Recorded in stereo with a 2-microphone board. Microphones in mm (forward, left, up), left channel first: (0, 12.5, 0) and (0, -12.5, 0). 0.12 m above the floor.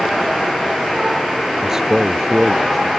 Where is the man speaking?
25° right (ahead or behind); by 2.9 s 5° left (ahead or behind).